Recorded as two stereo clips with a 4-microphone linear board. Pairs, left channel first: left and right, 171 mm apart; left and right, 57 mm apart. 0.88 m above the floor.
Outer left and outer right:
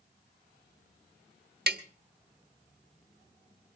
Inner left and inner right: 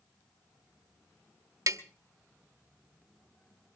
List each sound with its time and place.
1.7 s tapping: 60° right (ahead or behind), 1.3 m